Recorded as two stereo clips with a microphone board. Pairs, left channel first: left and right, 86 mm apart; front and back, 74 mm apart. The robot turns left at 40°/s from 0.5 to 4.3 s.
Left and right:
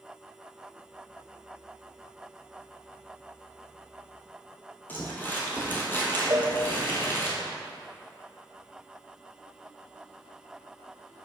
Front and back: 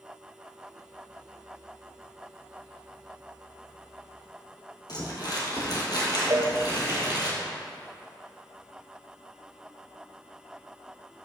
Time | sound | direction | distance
4.9 | crumpling | 25° left | 1.8 m
6.3 | a cowbell | 135° right | 0.5 m